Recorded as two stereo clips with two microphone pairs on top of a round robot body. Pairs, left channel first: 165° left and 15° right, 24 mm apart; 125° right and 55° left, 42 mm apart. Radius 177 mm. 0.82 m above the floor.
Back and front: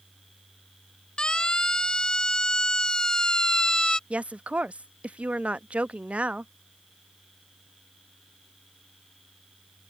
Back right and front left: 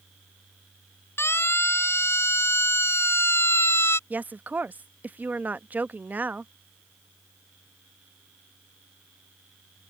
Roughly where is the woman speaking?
Ahead.